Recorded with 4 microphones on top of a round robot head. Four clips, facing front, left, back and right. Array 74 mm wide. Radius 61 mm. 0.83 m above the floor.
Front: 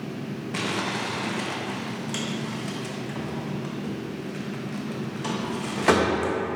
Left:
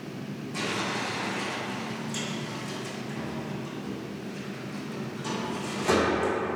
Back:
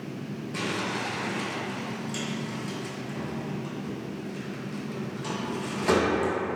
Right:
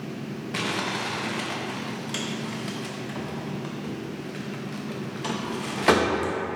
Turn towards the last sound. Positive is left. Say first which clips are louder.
# right 2 dB, front 2 dB
turn(degrees=-50)